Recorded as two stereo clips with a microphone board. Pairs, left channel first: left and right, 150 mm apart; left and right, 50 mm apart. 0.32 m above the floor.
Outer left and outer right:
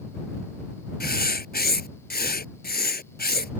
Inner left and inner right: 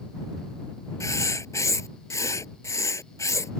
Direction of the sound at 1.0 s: 90° left.